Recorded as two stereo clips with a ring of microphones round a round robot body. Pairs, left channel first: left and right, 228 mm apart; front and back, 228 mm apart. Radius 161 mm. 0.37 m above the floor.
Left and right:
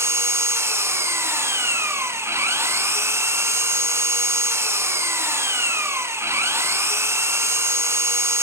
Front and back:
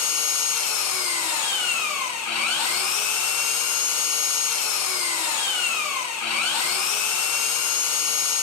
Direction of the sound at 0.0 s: 10° right.